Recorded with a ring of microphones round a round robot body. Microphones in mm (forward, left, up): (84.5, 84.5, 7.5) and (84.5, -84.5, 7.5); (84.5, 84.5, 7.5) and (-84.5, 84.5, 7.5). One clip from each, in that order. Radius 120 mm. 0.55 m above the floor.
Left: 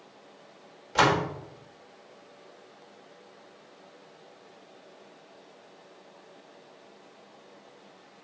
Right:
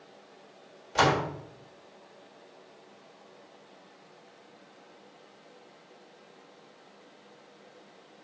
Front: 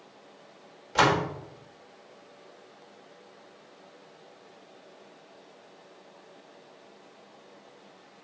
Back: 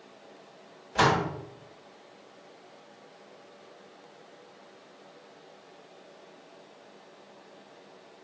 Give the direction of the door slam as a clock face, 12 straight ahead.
12 o'clock.